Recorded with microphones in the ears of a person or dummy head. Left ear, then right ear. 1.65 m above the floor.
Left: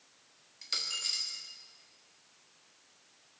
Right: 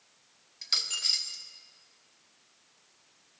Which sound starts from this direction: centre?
A dropped coin, at 0.6 s.